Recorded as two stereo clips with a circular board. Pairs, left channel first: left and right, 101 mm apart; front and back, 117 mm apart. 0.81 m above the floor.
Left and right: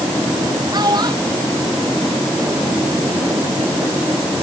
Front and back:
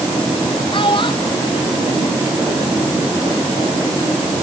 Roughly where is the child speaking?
Ahead right.